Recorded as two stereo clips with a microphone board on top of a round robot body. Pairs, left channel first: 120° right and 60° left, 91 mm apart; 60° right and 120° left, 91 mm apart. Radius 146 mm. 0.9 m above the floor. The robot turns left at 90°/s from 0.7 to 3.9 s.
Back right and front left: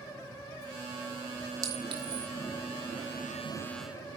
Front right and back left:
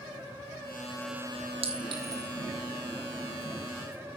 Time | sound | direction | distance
1.6 | a clink | 115° left | 1.6 m